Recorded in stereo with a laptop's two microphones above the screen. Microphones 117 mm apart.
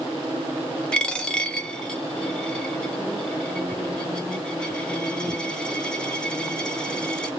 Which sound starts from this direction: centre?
A dropped coin, at 0.9 s.